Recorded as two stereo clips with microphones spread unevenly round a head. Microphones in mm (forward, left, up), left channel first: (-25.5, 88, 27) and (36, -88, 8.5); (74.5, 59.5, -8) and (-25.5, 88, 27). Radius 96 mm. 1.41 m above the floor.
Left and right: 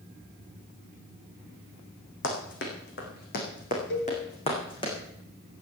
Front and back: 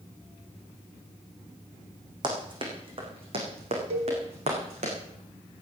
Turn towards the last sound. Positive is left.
turn(degrees=145)